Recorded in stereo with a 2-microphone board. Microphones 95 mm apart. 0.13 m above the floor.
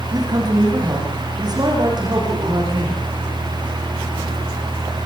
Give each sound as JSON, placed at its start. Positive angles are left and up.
{"t": 0.1, "sound": "a man speaking", "side_deg": -45, "distance_m": 9.5}